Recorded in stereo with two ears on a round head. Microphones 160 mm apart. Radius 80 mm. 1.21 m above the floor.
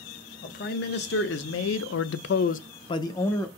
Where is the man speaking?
55° left (ahead or behind), 1.1 m; by 3.5 s 10° left (ahead or behind), 0.8 m.